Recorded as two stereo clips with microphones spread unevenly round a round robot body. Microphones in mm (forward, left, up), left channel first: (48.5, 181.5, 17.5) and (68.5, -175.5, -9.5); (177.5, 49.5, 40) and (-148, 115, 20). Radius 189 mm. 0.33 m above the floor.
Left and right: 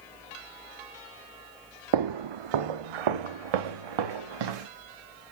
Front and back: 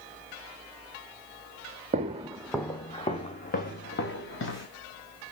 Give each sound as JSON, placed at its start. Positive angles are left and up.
{"t": 1.9, "sound": "footsteps", "azimuth_deg": -120, "distance_m": 0.8}